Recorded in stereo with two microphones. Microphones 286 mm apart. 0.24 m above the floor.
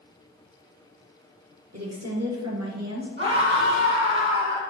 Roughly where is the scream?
Right.